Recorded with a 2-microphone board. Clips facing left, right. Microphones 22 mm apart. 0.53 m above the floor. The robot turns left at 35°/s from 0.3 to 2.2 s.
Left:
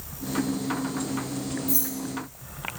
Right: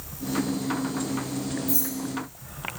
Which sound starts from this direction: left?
Keys jangling, at 1.7 s.